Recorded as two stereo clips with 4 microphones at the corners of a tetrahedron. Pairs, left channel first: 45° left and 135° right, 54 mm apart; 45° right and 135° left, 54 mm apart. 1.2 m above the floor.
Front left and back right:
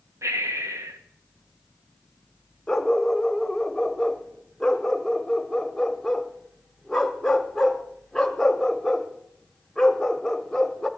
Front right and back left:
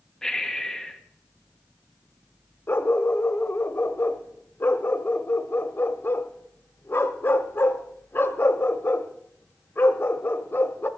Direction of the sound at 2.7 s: 35° right.